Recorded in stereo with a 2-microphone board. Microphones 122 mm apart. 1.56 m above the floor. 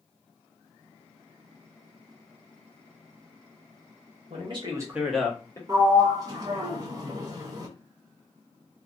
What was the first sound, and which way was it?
A man speaking, 50° right (ahead or behind).